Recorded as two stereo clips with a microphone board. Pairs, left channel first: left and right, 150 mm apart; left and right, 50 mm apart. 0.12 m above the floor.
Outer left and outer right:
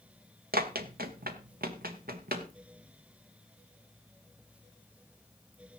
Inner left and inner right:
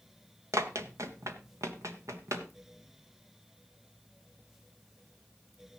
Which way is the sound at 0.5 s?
90° right.